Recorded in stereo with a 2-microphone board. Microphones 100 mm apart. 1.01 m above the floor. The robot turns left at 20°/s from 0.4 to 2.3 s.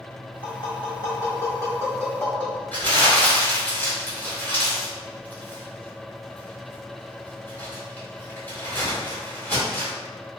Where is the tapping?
55° left (ahead or behind), 1.1 m; by 2.6 s 20° left (ahead or behind), 1.1 m.